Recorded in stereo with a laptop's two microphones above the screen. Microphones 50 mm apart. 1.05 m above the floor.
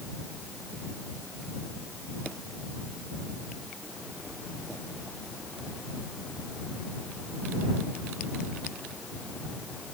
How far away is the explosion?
I don't hear an explosion.